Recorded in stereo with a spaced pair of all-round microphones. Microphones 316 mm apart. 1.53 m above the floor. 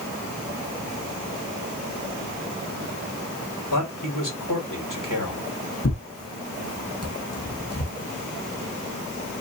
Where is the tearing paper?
50° left (ahead or behind), 1.1 m.